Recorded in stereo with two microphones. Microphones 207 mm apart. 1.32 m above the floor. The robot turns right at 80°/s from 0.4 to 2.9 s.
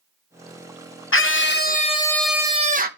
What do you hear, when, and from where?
1.1 s a scream: 90° left, 0.9 m; by 2.9 s 130° right, 0.9 m